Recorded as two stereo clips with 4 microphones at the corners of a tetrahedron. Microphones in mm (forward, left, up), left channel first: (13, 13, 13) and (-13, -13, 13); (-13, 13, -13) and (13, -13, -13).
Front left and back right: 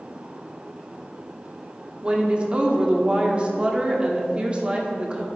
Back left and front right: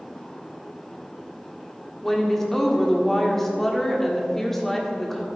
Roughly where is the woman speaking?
Behind right.